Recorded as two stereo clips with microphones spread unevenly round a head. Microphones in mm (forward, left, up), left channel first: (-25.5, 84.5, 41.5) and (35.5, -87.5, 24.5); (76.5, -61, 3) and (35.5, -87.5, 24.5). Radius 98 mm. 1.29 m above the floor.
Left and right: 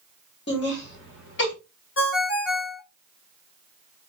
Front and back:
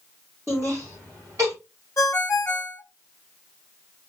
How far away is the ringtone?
About 1.0 m.